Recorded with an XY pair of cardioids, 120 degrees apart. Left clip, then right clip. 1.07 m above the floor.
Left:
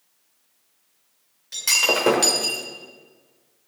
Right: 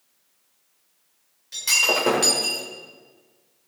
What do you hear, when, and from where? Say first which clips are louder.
1.5 s breaking glass: even; 20° left, 2.5 m